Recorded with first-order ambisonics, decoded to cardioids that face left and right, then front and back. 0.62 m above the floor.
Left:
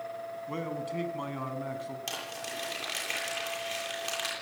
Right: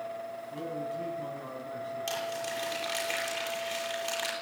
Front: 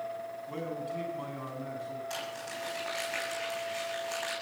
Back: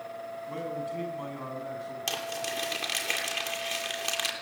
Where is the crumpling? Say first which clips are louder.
Right 5 dB, back 5 dB; 175° left, 9 m.